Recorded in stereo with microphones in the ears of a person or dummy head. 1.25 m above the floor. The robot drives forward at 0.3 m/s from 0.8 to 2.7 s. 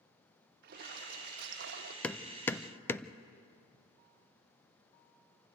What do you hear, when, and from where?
0.6 s a splash: 55° right (ahead or behind), 1.4 m; by 1.9 s 65° right (ahead or behind), 1.3 m
2.0 s hammering: 10° left (ahead or behind), 0.7 m; by 3.1 s 15° left (ahead or behind), 0.5 m